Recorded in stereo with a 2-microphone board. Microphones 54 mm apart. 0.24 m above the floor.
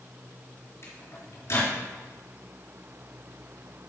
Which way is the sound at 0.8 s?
55° left (ahead or behind).